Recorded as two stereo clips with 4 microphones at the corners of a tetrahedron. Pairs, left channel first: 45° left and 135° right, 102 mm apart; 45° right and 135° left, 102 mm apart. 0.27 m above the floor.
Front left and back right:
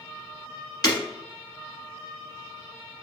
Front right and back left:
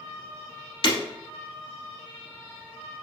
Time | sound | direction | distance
0.8 | breaking glass | 5° right | 1.5 m